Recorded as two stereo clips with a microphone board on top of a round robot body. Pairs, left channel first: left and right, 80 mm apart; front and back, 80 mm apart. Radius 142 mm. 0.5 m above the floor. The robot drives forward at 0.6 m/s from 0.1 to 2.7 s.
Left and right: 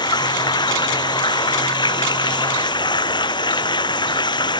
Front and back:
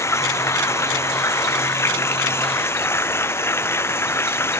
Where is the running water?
55° left; by 4.6 s 60° left.